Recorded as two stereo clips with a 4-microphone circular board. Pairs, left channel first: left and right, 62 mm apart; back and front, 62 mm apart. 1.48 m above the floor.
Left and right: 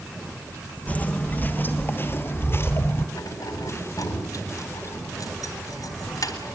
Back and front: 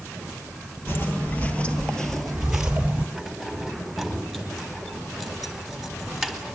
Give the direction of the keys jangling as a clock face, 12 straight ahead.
9 o'clock.